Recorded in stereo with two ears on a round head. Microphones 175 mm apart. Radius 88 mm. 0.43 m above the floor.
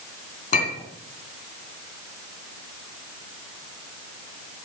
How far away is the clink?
About 2.5 m.